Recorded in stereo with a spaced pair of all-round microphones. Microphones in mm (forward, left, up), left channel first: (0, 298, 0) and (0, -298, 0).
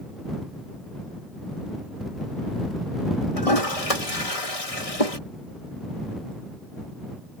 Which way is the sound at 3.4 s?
70° left (ahead or behind).